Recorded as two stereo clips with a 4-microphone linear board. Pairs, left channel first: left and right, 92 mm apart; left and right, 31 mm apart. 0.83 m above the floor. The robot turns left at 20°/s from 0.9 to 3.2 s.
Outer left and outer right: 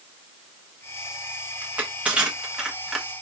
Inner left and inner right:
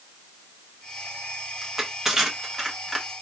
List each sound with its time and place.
1.6 s crushing: 15° right (ahead or behind), 1.0 m; by 3.1 s 5° right (ahead or behind), 1.0 m